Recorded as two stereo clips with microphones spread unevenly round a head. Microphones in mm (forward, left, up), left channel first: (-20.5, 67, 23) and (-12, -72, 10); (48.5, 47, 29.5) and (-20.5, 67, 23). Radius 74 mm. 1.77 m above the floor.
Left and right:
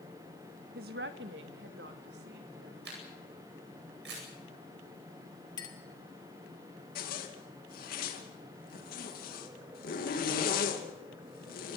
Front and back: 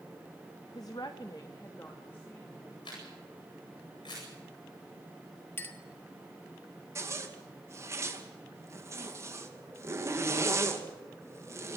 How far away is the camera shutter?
About 9 m.